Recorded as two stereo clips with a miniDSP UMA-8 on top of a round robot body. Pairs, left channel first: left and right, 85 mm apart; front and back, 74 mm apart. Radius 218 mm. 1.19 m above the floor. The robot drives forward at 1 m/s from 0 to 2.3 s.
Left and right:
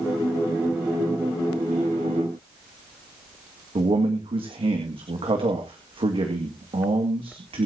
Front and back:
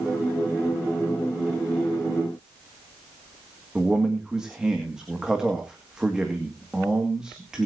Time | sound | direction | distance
3.8 | a man speaking | 100° right | 2.5 m